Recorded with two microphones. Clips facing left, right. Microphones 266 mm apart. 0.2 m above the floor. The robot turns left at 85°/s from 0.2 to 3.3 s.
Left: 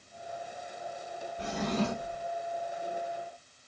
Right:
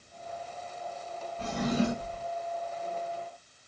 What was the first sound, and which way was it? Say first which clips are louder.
A drawer: right 3 dB; 20° left.